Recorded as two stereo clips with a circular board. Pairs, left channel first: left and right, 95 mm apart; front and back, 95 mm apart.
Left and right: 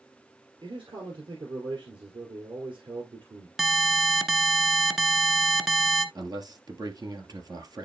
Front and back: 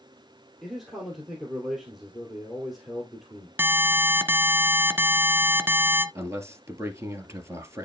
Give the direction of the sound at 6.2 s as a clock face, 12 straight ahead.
4 o'clock.